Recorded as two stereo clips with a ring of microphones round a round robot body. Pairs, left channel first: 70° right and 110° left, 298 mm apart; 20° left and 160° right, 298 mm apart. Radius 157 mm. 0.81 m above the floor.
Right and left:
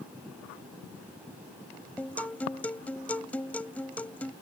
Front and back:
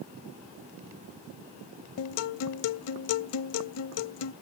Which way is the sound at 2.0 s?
15° left.